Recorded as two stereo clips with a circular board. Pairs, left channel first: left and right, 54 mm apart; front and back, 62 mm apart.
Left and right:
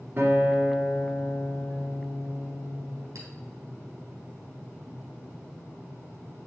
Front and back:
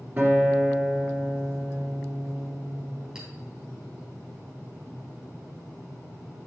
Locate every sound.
0.2 s a guitar: 125° right, 2 m
3.1 s a clink: 100° right, 3 m